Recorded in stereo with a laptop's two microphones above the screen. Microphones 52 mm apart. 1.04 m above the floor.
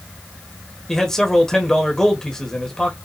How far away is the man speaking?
About 1.2 m.